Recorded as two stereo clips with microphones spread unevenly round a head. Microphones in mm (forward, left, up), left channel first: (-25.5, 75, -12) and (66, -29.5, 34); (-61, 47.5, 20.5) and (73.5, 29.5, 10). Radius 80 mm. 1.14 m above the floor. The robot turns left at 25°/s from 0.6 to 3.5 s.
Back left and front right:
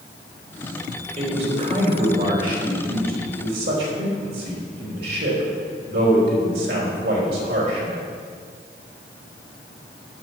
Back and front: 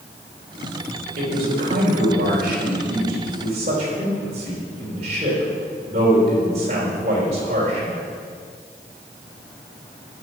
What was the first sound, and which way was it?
A man speaking, straight ahead.